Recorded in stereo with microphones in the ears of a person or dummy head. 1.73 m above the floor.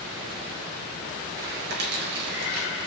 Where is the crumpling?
65° right (ahead or behind), 3 m.